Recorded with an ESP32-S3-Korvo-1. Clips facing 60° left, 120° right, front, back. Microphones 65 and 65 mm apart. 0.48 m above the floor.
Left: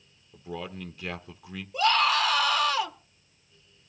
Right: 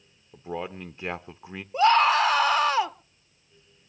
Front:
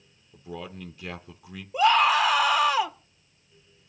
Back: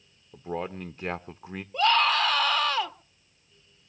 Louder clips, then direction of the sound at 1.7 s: Right 5 dB, front 3 dB; 70° right.